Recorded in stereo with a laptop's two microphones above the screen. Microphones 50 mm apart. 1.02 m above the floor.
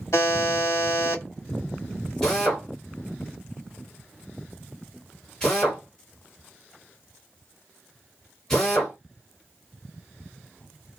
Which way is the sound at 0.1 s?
65° left (ahead or behind).